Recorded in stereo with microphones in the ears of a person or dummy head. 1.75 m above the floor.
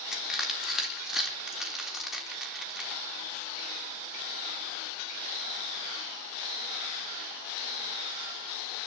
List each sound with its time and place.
0.1 s crushing: 5° left (ahead or behind), 3.5 m